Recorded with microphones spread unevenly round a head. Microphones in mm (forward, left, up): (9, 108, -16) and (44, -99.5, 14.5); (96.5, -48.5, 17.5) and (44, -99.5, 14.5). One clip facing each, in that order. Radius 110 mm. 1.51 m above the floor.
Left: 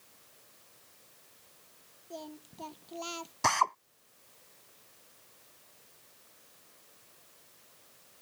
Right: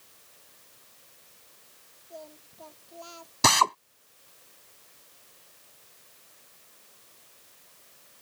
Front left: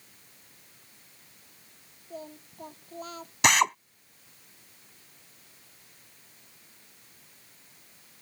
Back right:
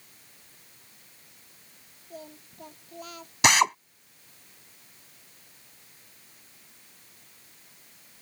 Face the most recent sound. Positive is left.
turn(degrees=-50)